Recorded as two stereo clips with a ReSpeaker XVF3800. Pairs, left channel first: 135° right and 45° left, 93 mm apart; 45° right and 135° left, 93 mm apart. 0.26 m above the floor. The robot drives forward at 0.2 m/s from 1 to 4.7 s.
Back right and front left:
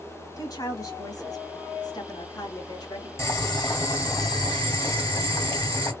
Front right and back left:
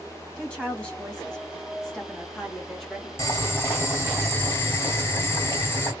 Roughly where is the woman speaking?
Behind right.